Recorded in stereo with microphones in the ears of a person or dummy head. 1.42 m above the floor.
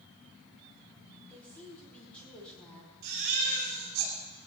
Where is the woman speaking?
10° left (ahead or behind), 4.5 m.